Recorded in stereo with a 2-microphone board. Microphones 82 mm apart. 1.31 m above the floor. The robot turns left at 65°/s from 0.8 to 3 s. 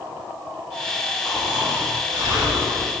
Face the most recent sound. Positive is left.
turn(degrees=-110)